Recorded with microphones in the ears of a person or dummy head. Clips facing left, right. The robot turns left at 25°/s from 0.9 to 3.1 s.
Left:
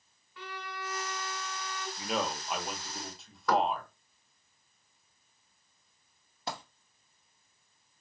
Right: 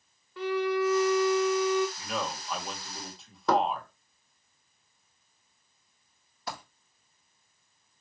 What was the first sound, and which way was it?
A violin, 30° right (ahead or behind).